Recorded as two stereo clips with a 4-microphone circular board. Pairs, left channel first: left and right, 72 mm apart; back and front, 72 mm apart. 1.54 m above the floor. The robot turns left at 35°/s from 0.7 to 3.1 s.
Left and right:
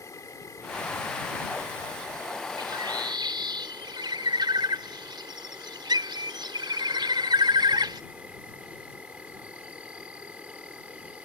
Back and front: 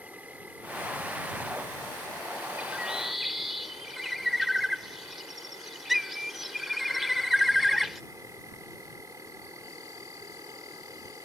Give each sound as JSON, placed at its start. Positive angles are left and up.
{"t": 0.0, "sound": "an insect", "azimuth_deg": 65}
{"t": 2.6, "sound": "a bird", "azimuth_deg": -70}